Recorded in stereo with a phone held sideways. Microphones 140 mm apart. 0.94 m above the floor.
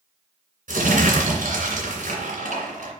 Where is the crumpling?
75° right (ahead or behind), 2.5 m.